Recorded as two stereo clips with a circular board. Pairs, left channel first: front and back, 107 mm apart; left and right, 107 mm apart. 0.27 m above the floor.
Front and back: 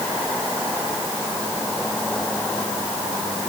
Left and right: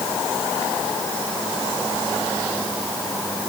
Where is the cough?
No cough in this recording.